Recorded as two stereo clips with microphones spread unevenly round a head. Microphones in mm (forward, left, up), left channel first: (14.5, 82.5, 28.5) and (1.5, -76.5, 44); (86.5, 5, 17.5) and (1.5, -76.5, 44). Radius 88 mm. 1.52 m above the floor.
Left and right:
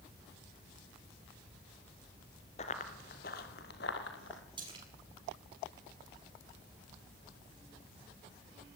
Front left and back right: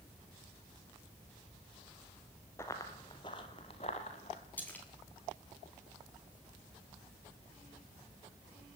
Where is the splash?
35° right, 7 m.